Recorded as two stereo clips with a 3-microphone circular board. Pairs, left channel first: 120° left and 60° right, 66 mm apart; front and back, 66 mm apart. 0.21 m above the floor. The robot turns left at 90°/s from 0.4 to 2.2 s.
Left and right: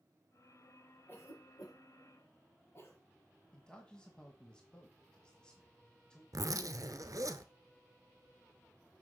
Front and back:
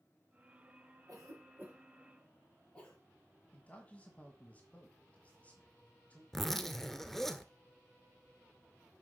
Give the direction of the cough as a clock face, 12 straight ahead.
6 o'clock.